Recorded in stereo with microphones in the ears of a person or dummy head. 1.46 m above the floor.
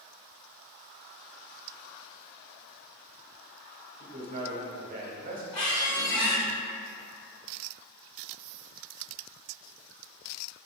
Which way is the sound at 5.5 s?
20° left (ahead or behind).